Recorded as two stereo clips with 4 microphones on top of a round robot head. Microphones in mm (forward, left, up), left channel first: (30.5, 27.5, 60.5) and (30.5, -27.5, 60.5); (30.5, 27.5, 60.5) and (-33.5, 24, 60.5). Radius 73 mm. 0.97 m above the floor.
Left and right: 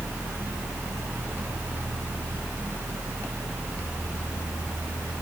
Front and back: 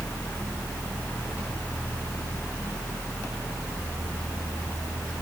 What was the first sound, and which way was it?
Only background noise.